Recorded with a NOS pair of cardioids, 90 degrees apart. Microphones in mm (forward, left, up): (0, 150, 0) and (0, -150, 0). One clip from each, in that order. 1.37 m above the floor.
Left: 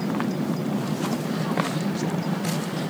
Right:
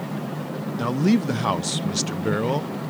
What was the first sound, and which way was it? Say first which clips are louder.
A man speaking: right 5 dB; 65° right.